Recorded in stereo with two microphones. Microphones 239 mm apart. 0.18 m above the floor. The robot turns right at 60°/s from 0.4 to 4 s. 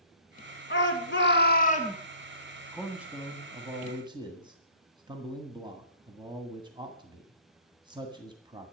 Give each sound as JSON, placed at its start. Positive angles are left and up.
{"t": 0.7, "sound": "a shout", "azimuth_deg": 75, "distance_m": 1.7}
{"t": 2.7, "sound": "a man speaking", "side_deg": 0, "distance_m": 1.5}